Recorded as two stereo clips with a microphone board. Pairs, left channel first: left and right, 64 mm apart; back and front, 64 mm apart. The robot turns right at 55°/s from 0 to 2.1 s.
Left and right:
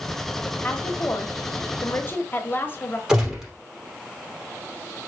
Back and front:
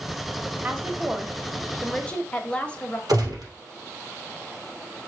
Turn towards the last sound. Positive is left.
turn(degrees=-10)